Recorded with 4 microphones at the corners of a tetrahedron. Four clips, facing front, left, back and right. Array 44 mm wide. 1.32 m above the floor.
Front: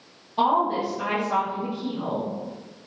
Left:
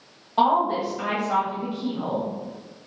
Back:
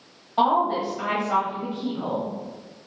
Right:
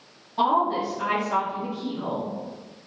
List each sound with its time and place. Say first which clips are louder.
0.4 s a woman speaking: left 2 dB, back 1 dB; 120° left, 1.4 m